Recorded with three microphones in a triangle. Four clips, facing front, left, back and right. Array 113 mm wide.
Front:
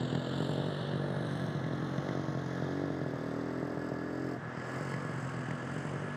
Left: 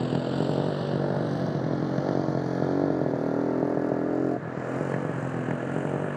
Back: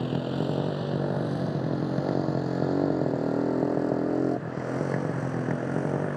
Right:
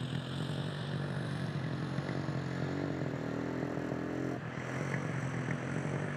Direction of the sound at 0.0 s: 115° left.